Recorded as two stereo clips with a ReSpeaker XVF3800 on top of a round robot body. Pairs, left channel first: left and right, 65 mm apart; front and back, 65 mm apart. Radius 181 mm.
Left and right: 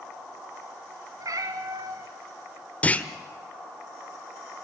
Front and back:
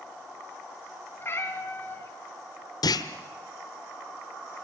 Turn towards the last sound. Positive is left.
turn(degrees=20)